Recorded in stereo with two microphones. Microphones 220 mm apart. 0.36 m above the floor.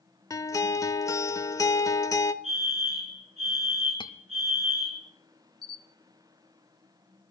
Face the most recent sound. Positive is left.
turn(degrees=20)  # may be behind; listen again after turning